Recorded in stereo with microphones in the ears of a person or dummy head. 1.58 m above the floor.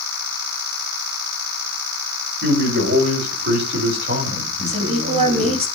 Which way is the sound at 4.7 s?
45° right (ahead or behind).